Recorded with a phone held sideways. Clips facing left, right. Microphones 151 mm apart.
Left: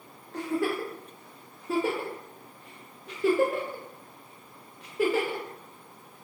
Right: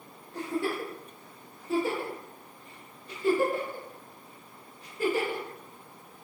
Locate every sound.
0.3 s a giggle: 85° left, 0.6 m